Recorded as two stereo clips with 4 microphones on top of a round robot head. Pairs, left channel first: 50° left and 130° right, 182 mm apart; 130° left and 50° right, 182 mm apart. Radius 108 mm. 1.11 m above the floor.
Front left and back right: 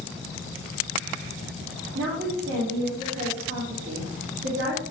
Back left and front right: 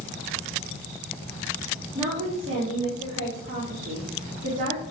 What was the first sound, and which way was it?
A woman speaking, 110° right.